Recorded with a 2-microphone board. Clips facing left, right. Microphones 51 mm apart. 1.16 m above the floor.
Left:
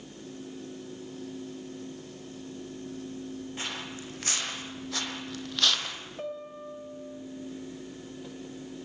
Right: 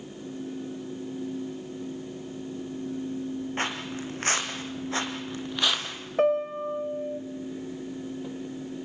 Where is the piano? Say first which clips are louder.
Right 16 dB; 70° right (ahead or behind), 2 m.